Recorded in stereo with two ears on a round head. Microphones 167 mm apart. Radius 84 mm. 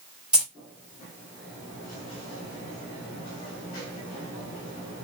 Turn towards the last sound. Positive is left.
turn(degrees=-5)  # may be behind; listen again after turning